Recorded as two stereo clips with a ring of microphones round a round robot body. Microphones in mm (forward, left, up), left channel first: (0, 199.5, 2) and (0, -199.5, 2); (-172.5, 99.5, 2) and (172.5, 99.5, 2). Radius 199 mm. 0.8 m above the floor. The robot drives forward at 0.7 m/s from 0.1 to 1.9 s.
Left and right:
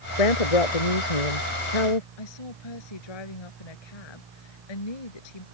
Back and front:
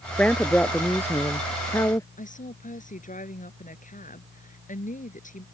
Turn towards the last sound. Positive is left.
turn(degrees=110)